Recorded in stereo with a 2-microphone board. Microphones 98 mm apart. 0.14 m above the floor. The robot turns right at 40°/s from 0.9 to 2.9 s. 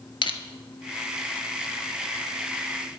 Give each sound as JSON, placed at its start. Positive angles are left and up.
{"t": 0.2, "sound": "crushing", "side_deg": 60, "distance_m": 0.9}